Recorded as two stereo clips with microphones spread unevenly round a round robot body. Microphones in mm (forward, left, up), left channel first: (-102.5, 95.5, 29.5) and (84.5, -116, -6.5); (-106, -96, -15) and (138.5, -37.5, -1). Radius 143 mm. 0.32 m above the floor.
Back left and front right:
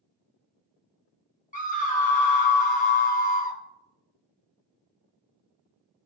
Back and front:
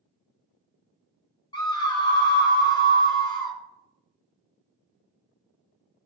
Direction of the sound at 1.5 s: 160° left.